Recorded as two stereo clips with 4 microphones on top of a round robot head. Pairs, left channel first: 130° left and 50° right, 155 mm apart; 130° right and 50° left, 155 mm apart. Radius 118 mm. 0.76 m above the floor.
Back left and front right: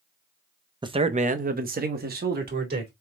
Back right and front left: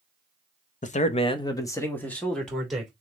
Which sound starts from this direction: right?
A man speaking, at 0.8 s.